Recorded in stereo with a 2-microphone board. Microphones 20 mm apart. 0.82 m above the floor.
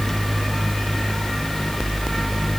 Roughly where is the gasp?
No gasp in this recording.